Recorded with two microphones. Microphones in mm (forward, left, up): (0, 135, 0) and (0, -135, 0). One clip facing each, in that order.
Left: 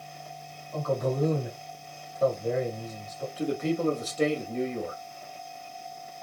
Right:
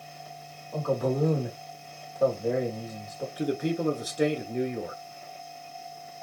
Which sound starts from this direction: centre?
A man speaking, at 3.4 s.